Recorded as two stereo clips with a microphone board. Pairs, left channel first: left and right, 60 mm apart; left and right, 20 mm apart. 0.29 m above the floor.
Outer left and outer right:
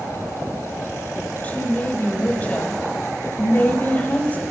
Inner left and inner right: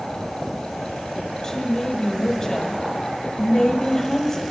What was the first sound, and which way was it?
A woman speaking, 25° left (ahead or behind).